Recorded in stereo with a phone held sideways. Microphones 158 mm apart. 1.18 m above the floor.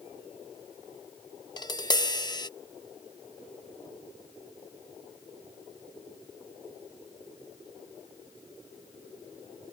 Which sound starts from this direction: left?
Tapping, at 1.6 s.